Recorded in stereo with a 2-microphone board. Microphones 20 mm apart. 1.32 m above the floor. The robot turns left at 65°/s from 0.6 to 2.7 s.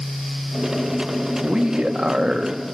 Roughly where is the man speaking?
Ahead right.